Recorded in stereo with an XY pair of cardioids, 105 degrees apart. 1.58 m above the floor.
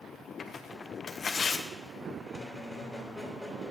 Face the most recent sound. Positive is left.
turn(degrees=5)